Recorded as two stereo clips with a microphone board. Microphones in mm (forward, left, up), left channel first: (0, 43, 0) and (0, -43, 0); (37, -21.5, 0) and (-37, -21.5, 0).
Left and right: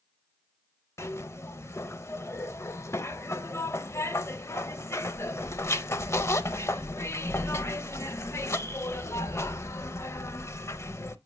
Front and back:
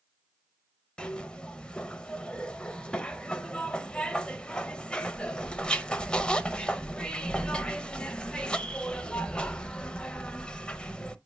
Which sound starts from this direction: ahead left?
A zipper, at 1.0 s.